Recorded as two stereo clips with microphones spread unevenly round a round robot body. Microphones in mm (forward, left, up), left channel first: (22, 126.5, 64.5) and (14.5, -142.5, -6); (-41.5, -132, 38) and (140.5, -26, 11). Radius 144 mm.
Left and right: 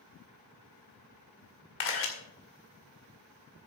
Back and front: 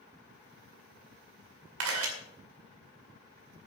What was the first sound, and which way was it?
A camera shutter, 45° left.